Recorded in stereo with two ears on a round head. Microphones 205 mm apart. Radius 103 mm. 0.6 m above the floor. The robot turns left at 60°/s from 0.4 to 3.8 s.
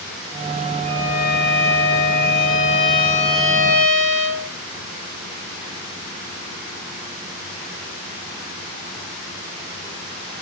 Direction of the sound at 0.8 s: 170° left.